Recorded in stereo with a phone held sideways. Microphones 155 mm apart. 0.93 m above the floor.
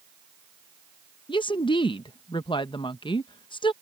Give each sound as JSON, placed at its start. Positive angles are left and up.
{"t": 1.3, "sound": "a woman speaking", "side_deg": 30}